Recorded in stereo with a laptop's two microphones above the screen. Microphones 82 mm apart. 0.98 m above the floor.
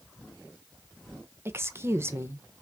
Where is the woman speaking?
30° right (ahead or behind), 0.8 m.